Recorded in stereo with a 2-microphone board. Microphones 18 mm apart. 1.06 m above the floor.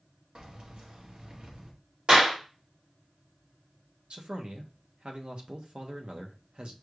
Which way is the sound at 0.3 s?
60° right (ahead or behind).